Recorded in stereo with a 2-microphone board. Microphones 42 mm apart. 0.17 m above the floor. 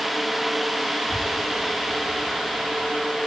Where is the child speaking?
50° left (ahead or behind), 7.5 m; by 3.0 s 45° left (ahead or behind), 7 m.